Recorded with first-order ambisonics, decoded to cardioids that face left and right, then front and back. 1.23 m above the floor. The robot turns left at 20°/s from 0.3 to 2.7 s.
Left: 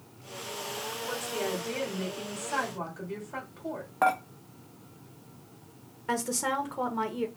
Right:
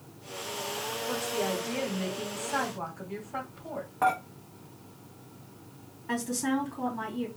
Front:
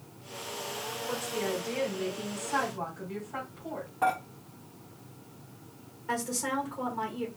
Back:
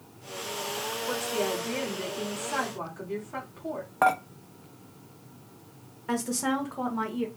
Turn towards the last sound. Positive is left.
turn(degrees=115)